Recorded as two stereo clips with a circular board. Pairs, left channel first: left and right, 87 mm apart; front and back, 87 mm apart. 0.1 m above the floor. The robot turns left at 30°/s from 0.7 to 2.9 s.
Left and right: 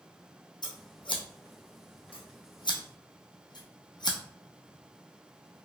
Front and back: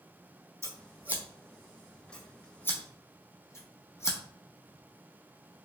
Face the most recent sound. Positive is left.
turn(degrees=55)